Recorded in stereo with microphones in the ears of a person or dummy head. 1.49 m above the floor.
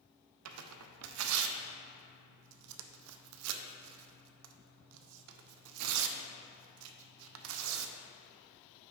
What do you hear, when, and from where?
0.5 s tearing paper: 75° right (ahead or behind), 0.5 m